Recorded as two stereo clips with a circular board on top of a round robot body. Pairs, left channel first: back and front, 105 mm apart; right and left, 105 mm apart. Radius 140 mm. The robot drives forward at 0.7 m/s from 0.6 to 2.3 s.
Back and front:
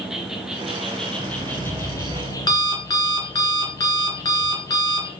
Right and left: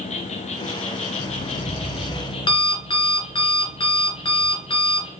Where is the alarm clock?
120° right, 3 m; by 5.1 s 130° right, 3.5 m.